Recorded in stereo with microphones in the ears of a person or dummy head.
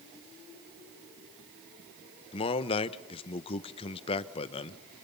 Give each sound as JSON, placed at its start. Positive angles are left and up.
{"t": 2.3, "sound": "a man speaking", "side_deg": 30, "distance_m": 1.1}